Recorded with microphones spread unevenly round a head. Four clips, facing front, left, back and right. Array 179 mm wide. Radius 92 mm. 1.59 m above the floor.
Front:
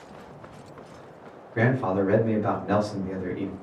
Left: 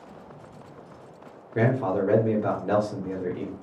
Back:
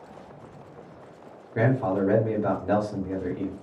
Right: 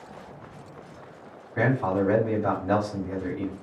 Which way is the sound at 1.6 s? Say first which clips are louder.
Even, even; 115° left.